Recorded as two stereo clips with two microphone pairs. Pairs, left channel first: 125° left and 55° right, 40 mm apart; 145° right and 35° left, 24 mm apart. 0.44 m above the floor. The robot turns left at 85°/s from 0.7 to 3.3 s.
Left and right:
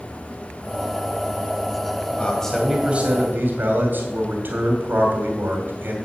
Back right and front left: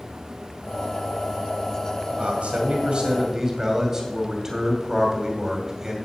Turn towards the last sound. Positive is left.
turn(degrees=-30)